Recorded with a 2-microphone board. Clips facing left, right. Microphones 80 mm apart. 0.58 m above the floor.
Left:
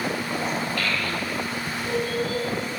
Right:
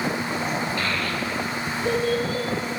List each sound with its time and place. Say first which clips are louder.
0.8 s a child speaking: right 1 dB; 20° right (ahead or behind), 0.7 m; by 2.4 s 65° right (ahead or behind), 2.5 m